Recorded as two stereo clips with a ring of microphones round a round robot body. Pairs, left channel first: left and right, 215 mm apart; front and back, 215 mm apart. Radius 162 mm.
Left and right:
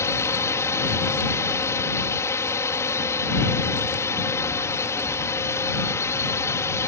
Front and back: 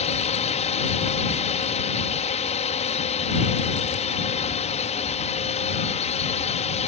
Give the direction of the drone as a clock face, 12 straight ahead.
11 o'clock.